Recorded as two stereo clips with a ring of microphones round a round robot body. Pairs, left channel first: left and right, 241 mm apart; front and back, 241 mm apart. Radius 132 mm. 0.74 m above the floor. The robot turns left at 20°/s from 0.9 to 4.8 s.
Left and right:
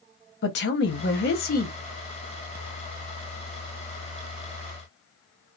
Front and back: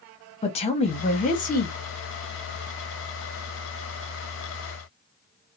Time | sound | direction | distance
0.4 | a woman speaking | 60° left | 0.8 m